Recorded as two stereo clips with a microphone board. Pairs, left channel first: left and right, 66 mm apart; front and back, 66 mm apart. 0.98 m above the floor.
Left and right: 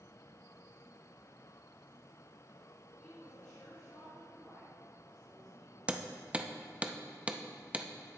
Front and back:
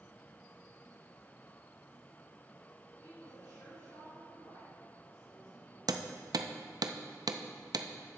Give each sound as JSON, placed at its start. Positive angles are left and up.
{"t": 3.0, "sound": "a woman speaking", "azimuth_deg": 20, "distance_m": 3.0}
{"t": 5.9, "sound": "hammering", "azimuth_deg": -155, "distance_m": 0.5}